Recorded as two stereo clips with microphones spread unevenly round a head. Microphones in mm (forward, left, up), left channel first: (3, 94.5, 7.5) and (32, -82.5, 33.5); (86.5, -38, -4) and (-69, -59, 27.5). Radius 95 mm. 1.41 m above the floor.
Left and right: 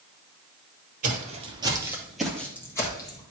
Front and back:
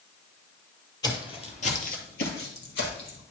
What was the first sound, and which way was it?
Footsteps, 60° right.